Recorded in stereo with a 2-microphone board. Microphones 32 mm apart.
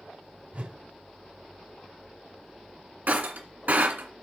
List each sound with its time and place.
0.5 s a whoosh: 50° right (ahead or behind), 1.1 m
3.1 s breaking glass: 70° right (ahead or behind), 2.0 m